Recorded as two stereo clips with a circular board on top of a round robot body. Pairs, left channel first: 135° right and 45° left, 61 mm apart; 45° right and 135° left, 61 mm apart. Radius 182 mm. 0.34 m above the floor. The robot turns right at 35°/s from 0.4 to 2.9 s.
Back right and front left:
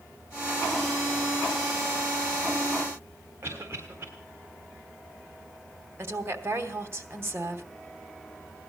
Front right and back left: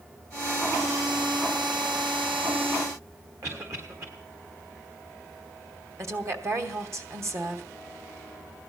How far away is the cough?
About 3.5 m.